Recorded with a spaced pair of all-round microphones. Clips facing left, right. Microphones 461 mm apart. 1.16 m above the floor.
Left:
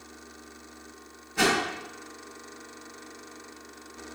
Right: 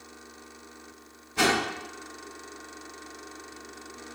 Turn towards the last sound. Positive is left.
turn(degrees=-50)  # may be behind; listen again after turning